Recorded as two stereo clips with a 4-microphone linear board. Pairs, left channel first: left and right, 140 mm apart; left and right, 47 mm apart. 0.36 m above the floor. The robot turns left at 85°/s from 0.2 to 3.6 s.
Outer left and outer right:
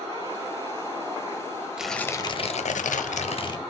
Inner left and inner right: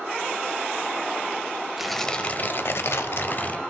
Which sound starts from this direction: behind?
Tearing paper, at 1.8 s.